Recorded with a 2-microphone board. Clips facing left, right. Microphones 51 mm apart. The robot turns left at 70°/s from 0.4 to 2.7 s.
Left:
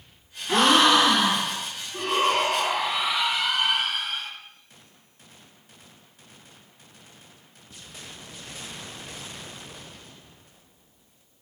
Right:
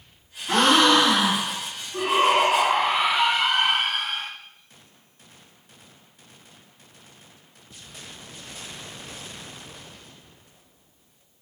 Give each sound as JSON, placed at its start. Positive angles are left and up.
{"t": 0.5, "sound": "a gasp", "azimuth_deg": -75, "distance_m": 3.5}
{"t": 1.9, "sound": "a shout", "azimuth_deg": -20, "distance_m": 1.2}